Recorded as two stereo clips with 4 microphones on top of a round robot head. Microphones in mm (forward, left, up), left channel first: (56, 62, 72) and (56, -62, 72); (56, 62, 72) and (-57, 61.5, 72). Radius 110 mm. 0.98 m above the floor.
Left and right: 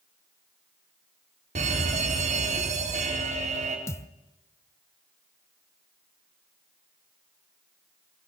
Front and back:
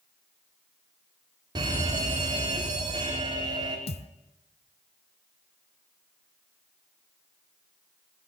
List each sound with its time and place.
1.6 s a fire alarm: 120° right, 4.5 m
3.9 s a thud: 25° left, 1.3 m